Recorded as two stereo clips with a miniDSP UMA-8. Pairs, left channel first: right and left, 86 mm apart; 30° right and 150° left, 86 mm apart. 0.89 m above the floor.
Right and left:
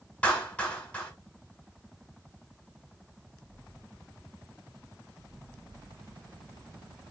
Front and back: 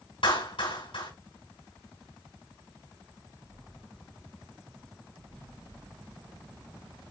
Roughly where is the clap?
Ahead.